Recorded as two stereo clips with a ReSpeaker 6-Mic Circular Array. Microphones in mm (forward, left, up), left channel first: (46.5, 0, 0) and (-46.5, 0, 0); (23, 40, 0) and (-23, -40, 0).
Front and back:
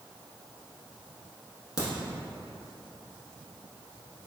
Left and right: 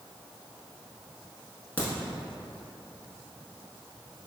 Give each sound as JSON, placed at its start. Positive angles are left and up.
{"t": 1.8, "sound": "a crack", "azimuth_deg": -5, "distance_m": 0.8}